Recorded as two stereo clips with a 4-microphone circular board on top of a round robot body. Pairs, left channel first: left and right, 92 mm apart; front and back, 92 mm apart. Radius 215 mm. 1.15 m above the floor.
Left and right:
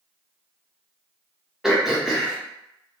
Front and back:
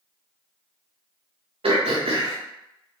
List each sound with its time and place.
1.6 s throat clearing: 175° right, 0.5 m